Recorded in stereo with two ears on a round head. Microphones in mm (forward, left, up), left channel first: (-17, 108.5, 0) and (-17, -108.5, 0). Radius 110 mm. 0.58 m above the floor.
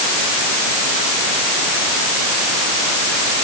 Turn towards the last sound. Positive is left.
No sound to turn to.